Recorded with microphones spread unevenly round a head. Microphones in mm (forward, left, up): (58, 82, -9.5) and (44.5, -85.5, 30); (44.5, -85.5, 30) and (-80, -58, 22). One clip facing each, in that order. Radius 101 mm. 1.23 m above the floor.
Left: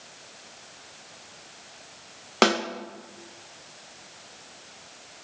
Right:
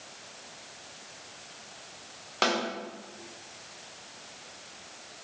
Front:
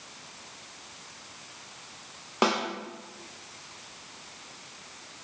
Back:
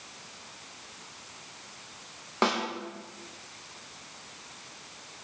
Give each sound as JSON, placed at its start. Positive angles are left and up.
{"t": 2.4, "sound": "a snare drum", "azimuth_deg": 70, "distance_m": 1.2}